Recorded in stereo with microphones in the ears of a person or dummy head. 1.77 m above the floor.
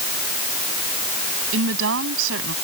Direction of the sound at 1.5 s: 80° right.